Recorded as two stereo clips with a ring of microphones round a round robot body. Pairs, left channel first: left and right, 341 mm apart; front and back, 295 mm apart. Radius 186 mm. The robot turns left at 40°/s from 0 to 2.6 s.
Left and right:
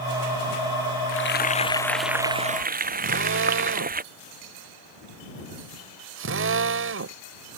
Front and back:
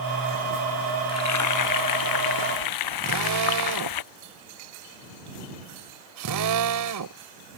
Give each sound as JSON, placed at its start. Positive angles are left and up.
{"t": 1.1, "sound": "frying", "azimuth_deg": 35}
{"t": 3.0, "sound": "a drill", "azimuth_deg": -145}